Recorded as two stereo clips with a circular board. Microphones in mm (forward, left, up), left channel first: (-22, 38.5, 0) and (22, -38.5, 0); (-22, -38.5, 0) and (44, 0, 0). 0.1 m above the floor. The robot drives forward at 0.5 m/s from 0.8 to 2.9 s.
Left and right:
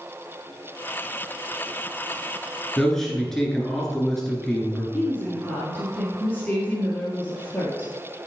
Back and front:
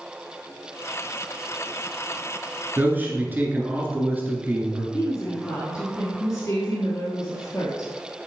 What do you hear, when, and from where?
2.8 s a man speaking: 40° left, 1.7 m
4.9 s a woman speaking: 175° right, 2 m